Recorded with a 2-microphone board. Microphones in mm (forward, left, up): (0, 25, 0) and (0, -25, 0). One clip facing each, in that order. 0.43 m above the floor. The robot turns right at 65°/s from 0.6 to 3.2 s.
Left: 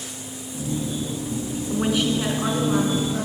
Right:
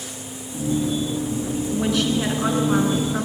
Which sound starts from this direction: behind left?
A woman speaking, at 1.7 s.